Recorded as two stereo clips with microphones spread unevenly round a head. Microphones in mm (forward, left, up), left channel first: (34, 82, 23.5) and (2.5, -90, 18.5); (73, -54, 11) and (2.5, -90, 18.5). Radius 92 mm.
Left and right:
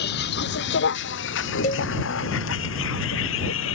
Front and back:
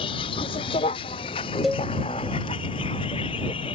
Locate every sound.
0.0 s a vehicle: 55° left; by 3.8 s 80° left
1.6 s a cowbell: 120° left